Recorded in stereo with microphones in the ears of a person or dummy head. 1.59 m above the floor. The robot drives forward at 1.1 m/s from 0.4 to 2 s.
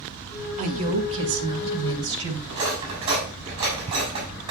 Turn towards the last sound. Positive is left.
turn(degrees=-30)  # may be behind; listen again after turning